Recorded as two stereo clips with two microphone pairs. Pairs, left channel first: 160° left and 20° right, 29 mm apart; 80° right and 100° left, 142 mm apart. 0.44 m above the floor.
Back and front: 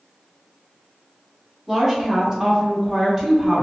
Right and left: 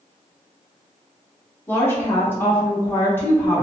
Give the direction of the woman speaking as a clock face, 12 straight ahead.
2 o'clock.